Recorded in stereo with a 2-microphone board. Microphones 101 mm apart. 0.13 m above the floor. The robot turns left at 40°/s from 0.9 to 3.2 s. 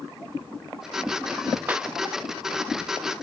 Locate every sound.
1.7 s a clap: 20° right (ahead or behind); by 1.9 s 10° right (ahead or behind)